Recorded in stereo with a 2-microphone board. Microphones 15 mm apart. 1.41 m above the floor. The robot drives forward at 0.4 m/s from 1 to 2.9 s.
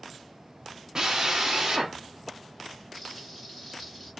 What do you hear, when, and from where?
0.9 s a drill: 45° right (ahead or behind), 0.8 m; by 2.0 s 30° right (ahead or behind), 1.1 m
2.9 s frying: 10° left (ahead or behind), 1.6 m